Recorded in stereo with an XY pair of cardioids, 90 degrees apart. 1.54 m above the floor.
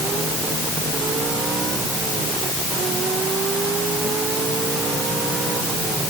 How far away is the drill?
No drill in this recording.